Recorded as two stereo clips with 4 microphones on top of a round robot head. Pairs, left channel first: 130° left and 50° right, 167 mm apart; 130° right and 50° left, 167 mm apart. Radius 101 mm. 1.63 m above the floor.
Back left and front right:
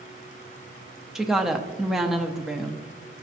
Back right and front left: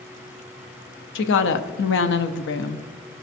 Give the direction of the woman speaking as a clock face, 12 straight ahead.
5 o'clock.